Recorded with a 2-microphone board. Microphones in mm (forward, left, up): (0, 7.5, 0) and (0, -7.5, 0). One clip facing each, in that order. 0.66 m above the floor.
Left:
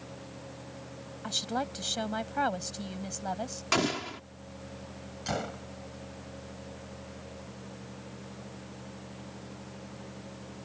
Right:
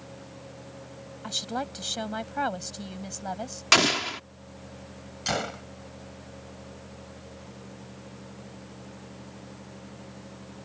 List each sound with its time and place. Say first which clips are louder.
1.2 s a woman speaking: right 1 dB; 5° right (ahead or behind)
3.7 s an explosion: right 8 dB; 60° right (ahead or behind)
5.3 s a gunshot: right 5 dB; 45° right (ahead or behind)